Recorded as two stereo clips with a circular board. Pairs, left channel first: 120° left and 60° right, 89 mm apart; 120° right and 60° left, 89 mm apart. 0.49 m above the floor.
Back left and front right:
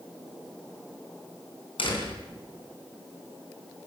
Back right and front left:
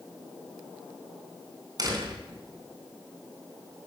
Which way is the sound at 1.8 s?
105° left.